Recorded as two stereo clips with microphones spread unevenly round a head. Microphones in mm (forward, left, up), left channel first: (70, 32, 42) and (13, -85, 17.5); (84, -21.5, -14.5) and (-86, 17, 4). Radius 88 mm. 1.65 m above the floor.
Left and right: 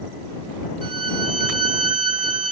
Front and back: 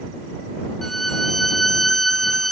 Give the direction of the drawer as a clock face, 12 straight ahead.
I don't hear a drawer.